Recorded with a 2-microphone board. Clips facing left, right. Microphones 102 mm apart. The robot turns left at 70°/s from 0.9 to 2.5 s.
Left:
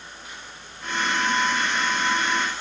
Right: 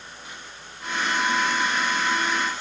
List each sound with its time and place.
Only background noise.